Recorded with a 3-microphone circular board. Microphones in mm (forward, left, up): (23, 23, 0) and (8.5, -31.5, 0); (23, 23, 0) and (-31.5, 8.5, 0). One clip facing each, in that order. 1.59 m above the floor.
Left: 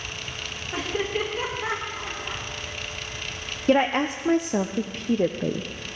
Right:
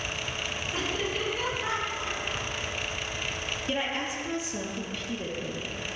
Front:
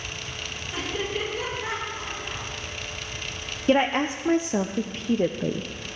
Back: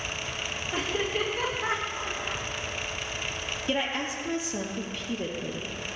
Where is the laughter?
135° left, 4.5 m; by 2.5 s 140° left, 5.5 m.